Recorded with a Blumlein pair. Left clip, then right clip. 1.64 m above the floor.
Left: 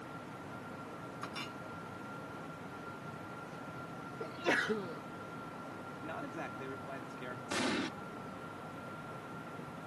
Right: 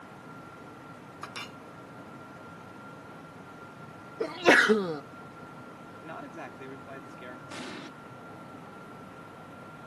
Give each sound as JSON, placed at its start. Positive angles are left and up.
{"t": 1.2, "sound": "a clink", "azimuth_deg": -10}
{"t": 4.2, "sound": "a sneeze", "azimuth_deg": -60}
{"t": 6.0, "sound": "a man speaking", "azimuth_deg": -5}
{"t": 7.5, "sound": "an explosion", "azimuth_deg": 20}